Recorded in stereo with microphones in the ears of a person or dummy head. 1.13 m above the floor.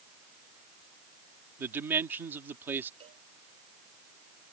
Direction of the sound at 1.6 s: 10° right (ahead or behind).